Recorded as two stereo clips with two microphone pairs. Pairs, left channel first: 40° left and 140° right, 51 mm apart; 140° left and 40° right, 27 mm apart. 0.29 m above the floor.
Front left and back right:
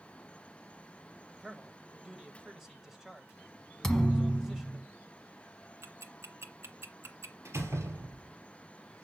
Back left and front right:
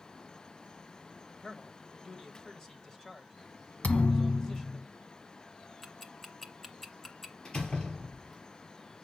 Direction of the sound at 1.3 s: 150° left.